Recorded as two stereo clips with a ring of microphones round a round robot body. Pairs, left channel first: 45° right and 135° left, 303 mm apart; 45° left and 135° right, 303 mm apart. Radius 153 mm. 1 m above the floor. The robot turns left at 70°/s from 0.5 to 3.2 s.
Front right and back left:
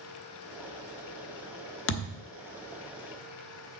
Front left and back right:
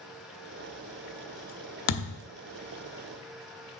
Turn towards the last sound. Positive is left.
turn(degrees=-85)